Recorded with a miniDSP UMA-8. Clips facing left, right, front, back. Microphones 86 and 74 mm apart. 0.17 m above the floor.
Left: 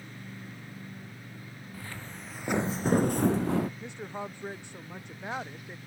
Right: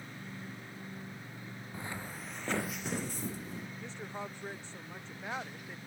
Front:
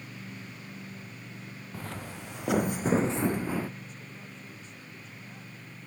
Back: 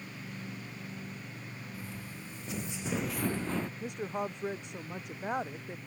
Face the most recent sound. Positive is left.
turn(degrees=165)